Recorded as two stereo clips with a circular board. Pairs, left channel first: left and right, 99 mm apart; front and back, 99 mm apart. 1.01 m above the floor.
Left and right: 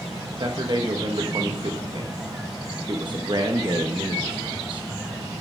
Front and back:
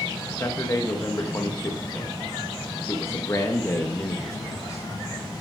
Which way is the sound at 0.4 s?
55° right.